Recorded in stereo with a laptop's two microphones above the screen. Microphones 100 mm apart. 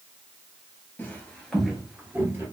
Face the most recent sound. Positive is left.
turn(degrees=-20)  # may be behind; listen again after turning